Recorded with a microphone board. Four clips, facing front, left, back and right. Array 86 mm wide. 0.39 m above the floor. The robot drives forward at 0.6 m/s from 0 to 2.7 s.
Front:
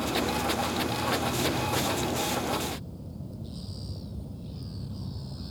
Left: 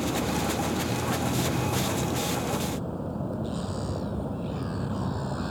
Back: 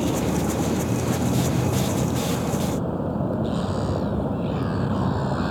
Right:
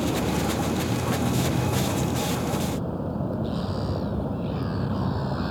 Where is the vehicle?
170° right.